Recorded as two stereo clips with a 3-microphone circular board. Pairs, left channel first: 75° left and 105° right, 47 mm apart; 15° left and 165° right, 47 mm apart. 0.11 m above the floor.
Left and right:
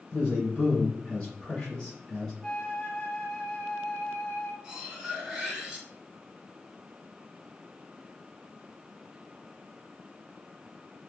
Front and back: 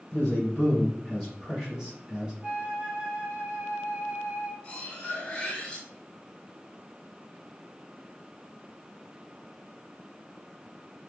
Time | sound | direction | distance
0.1 | a man speaking | 30° left | 1.6 m
2.4 | a flute | 145° left | 0.6 m
4.6 | cutlery clinking | 40° right | 0.9 m